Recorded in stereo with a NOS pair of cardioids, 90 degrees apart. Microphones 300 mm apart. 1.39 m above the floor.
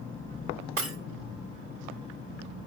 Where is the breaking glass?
45° right, 2 m.